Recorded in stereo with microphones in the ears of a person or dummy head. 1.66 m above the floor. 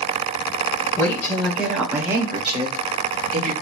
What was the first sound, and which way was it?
A woman speaking, 10° left (ahead or behind).